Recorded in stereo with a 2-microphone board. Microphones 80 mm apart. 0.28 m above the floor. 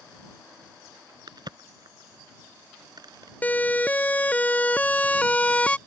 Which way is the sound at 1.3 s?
60° right (ahead or behind).